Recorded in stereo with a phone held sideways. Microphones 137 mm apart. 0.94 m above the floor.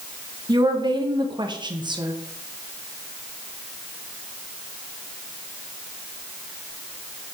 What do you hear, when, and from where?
0.5 s a woman speaking: 30° right (ahead or behind), 1.1 m